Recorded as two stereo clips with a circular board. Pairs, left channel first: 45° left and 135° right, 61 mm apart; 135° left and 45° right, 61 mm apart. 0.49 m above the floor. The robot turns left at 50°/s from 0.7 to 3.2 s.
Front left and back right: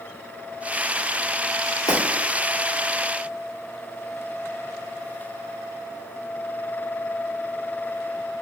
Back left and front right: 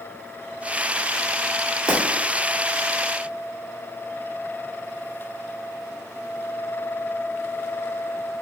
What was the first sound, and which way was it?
Breaking glass, 30° left.